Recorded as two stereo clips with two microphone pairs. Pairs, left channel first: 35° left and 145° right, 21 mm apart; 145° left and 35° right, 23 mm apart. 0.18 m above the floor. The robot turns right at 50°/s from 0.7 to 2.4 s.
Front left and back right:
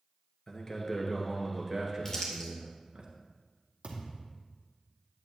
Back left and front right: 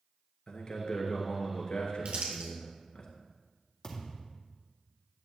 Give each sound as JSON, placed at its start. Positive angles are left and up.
{"t": 0.5, "sound": "a man speaking", "azimuth_deg": 100, "distance_m": 2.5}
{"t": 2.0, "sound": "crumpling", "azimuth_deg": -25, "distance_m": 3.0}
{"t": 3.8, "sound": "a thud", "azimuth_deg": -160, "distance_m": 2.5}